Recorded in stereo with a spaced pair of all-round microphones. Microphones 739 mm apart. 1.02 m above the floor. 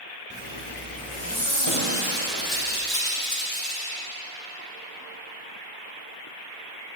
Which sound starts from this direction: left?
Breaking glass, at 1.7 s.